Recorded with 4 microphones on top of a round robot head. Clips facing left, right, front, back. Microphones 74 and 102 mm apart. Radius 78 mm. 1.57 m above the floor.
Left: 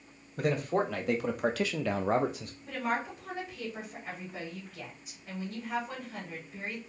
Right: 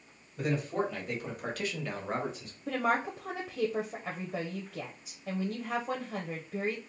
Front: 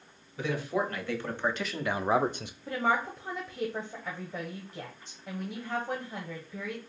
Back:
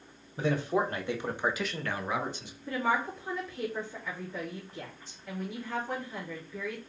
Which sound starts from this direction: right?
A woman speaking, at 2.7 s.